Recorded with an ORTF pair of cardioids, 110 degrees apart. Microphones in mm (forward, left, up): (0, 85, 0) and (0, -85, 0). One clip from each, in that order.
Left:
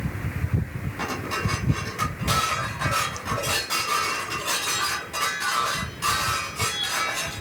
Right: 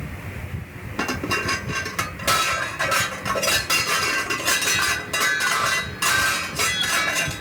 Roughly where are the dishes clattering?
Ahead right.